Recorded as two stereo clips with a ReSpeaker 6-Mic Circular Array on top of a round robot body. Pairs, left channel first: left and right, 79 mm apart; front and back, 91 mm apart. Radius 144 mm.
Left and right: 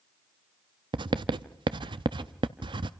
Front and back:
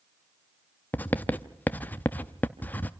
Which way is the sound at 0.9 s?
75° right.